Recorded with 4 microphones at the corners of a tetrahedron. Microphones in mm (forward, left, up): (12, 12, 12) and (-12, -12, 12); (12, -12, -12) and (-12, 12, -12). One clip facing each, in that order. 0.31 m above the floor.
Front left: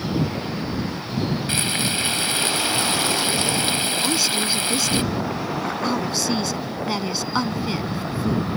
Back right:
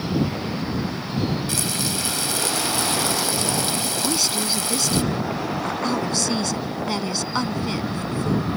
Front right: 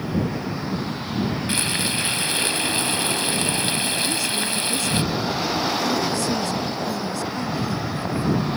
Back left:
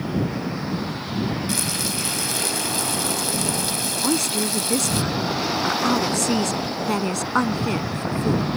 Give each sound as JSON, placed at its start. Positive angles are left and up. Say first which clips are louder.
{"t": 1.5, "sound": "frying", "louder": "front left 3 dB, front right 2 dB", "azimuth_deg": 0}
{"t": 4.0, "sound": "a woman speaking", "louder": "even, back left 1 dB", "azimuth_deg": 130}